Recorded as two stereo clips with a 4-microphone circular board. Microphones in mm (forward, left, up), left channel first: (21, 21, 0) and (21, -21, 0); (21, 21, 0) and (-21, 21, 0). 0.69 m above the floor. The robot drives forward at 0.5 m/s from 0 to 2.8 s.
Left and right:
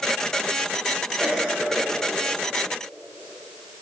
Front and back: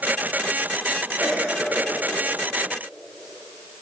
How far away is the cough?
About 2 m.